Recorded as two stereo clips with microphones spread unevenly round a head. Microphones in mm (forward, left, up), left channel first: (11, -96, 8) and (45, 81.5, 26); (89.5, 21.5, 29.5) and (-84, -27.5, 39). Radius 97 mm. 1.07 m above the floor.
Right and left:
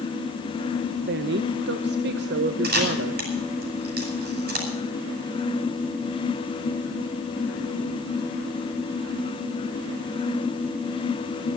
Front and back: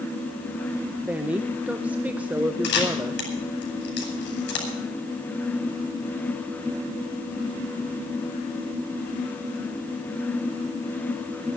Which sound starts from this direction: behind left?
A woman speaking, at 1.1 s.